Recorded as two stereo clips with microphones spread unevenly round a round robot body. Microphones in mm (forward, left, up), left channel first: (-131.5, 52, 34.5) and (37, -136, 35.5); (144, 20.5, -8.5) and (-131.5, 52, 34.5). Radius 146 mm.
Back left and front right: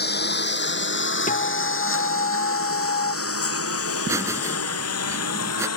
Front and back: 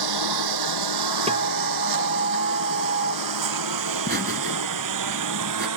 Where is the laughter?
125° right.